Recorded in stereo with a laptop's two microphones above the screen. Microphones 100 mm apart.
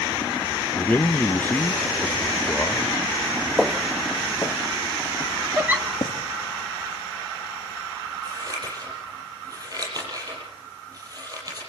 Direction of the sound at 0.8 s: 20° left (ahead or behind).